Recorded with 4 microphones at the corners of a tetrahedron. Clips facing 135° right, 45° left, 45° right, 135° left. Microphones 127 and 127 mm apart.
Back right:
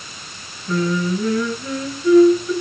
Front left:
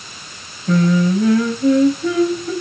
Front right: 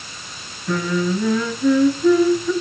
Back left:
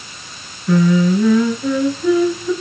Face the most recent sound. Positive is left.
turn(degrees=50)